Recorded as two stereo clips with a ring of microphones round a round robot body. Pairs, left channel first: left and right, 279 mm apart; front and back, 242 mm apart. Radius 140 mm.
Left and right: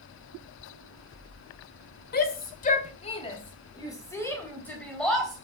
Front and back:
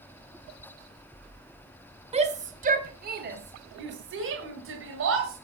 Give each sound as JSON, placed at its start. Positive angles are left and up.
{"t": 2.1, "sound": "a shout", "azimuth_deg": 130, "distance_m": 1.7}